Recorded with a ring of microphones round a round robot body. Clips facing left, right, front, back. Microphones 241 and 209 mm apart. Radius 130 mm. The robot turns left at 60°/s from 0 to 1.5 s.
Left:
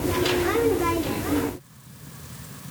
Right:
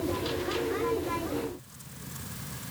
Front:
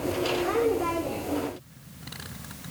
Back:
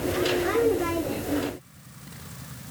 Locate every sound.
Only background noise.